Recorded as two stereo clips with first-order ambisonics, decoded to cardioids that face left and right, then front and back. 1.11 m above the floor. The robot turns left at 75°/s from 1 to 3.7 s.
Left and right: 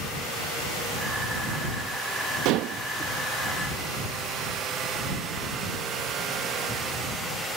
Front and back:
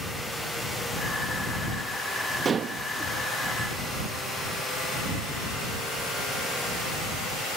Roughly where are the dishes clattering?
Right.